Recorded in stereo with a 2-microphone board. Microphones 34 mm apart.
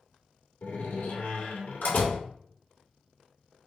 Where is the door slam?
80° left, 1.7 m.